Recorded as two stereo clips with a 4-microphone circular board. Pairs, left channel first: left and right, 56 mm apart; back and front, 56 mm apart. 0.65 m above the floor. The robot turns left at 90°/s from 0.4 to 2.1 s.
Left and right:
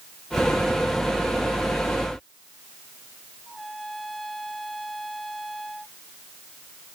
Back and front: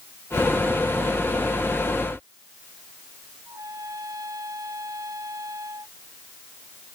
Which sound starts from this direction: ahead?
A trumpet, at 3.5 s.